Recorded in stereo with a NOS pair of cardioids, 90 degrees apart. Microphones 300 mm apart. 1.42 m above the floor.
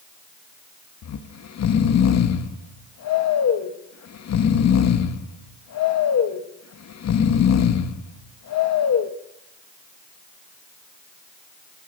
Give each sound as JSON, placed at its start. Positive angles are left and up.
{"t": 1.0, "sound": "snoring", "azimuth_deg": 60, "distance_m": 2.0}